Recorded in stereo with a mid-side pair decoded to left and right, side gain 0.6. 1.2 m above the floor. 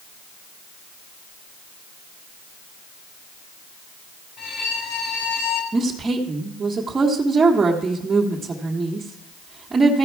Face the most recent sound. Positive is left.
turn(degrees=-25)